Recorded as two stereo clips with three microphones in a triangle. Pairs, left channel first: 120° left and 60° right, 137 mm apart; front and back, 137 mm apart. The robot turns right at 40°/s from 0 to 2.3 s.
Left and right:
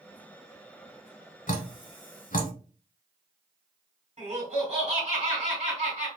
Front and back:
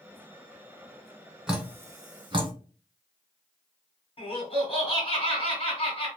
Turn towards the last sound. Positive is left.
turn(degrees=-35)